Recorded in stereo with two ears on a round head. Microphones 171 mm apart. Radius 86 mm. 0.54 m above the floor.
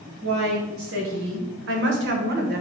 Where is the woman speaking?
75° right (ahead or behind), 2.5 m; by 2.6 s 50° right (ahead or behind), 1.5 m.